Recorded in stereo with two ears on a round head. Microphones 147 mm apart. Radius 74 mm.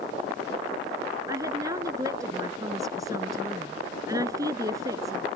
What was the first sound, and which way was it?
A woman speaking, 20° right (ahead or behind).